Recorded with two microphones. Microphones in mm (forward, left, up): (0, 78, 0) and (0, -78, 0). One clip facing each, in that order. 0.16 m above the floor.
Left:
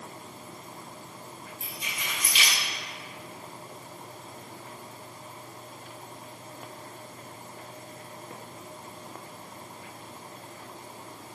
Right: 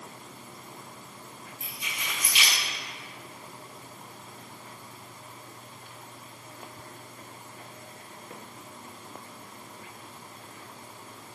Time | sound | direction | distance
1.6 | keys jangling | 50° left (ahead or behind) | 2.0 m